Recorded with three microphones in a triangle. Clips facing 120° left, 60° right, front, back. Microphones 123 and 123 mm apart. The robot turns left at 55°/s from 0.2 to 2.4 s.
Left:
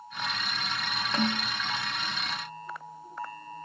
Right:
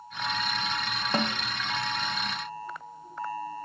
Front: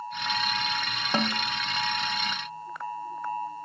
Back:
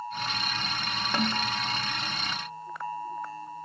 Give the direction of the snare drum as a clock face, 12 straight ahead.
2 o'clock.